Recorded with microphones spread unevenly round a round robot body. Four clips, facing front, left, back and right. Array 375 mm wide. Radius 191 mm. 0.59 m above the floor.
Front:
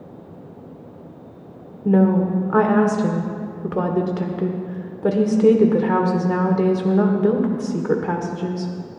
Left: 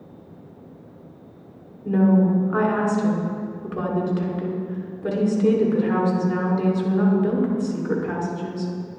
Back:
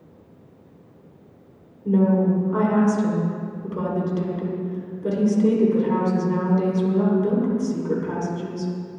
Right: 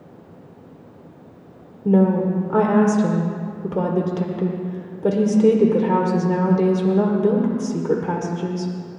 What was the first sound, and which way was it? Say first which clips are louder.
A woman speaking: right 1 dB, front 2 dB; 30° right.